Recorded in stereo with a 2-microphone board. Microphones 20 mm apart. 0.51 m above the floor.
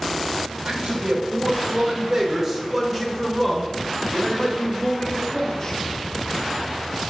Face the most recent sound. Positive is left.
turn(degrees=30)  # may be behind; listen again after turning